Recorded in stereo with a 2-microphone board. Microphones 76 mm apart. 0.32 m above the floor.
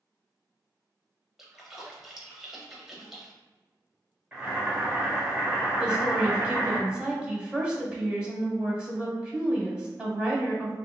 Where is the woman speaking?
10° right (ahead or behind), 0.9 m.